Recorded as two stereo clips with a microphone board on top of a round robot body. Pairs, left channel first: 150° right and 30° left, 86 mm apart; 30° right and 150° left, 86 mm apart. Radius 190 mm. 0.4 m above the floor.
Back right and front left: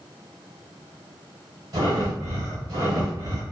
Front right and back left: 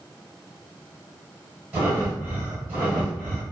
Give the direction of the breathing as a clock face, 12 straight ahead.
9 o'clock.